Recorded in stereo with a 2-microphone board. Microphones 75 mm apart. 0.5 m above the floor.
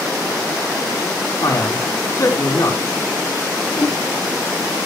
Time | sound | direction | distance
1.4 | a man speaking | 55° left (ahead or behind) | 4 m
3.7 | a whoosh | 85° left | 8.5 m